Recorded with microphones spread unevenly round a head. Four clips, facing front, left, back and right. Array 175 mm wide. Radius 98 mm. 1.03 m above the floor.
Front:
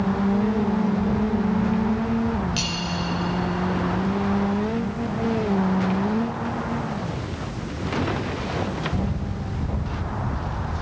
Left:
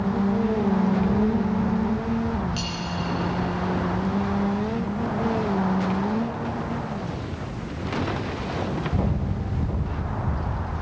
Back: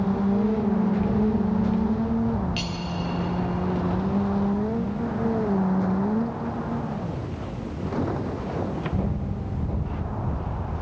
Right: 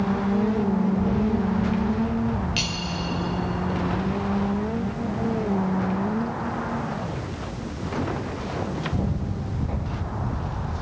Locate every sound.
2.6 s cutlery clinking: 85° right, 2.5 m